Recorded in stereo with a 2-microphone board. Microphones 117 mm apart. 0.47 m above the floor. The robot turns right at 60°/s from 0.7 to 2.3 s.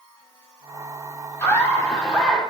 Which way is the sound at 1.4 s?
130° left.